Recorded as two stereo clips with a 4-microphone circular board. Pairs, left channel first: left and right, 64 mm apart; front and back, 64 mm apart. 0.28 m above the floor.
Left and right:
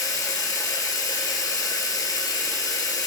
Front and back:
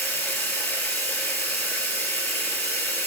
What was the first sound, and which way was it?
Running water, 65° left.